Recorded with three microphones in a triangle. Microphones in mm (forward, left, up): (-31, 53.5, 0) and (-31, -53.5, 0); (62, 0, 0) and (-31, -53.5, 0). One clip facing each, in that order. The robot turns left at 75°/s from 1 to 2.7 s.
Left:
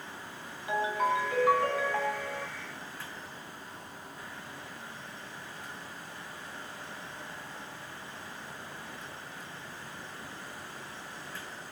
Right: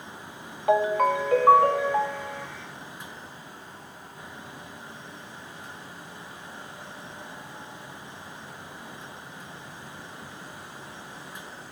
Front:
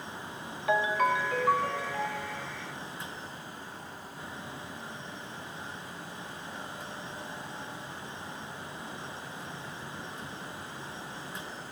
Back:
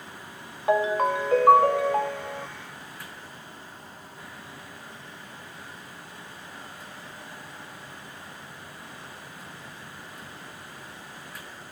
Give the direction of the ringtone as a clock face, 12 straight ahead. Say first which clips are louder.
Right 8 dB, back 4 dB; 3 o'clock.